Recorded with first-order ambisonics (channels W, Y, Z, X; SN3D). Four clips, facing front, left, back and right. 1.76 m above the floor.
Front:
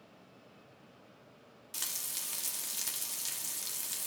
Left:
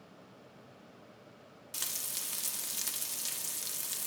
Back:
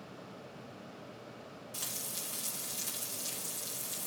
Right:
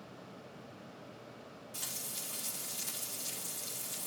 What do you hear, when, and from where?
1.7 s frying: 55° left, 1.5 m